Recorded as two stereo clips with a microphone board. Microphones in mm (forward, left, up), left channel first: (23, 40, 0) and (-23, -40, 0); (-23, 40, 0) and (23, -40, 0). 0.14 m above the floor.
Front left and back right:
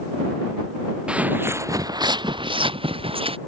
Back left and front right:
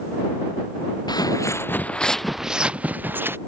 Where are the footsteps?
160° left; by 3.4 s 125° right.